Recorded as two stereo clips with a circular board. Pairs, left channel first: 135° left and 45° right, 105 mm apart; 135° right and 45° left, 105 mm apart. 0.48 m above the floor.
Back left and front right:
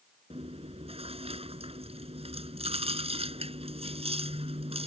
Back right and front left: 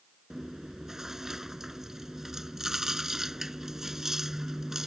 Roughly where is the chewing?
Ahead right.